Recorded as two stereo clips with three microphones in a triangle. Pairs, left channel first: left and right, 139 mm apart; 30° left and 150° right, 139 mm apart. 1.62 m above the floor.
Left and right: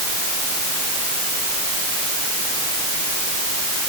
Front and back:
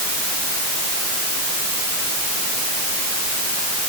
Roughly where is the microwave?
I don't hear a microwave.